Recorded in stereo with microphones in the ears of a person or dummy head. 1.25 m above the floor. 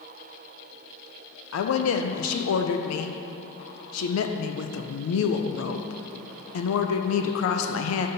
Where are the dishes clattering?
I don't hear dishes clattering.